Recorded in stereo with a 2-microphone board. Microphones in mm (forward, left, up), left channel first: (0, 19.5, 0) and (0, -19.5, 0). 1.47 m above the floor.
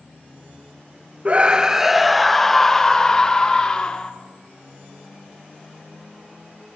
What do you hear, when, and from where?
1.2 s a scream: 35° right (ahead or behind), 0.5 m; by 4.1 s 20° left (ahead or behind), 1.9 m